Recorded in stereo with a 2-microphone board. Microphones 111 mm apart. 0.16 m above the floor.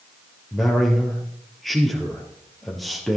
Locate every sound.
0.5 s a man speaking: centre (ahead or behind), 3 m